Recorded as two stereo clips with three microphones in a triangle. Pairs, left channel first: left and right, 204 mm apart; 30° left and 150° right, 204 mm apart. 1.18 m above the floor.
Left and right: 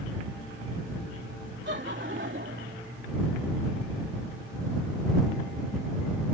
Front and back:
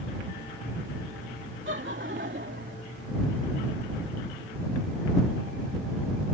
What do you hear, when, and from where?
1.6 s laughter: 125° right; by 2.8 s 115° right